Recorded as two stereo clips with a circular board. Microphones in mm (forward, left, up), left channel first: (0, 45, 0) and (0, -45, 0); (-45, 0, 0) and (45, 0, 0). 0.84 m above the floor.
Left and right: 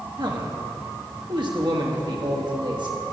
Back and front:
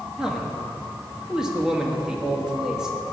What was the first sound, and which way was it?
A man speaking, 80° right.